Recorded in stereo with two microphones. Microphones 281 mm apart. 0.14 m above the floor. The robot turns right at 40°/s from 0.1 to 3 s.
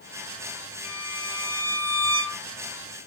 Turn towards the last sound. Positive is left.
turn(degrees=160)